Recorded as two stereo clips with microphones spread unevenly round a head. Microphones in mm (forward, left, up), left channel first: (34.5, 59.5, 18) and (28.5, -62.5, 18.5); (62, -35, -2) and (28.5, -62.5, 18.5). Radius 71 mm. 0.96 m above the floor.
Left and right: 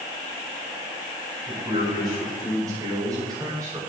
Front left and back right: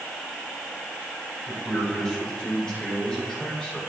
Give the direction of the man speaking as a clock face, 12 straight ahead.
1 o'clock.